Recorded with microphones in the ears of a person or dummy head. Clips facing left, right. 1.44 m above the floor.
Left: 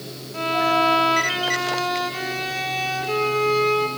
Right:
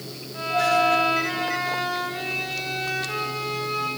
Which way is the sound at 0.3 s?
55° left (ahead or behind).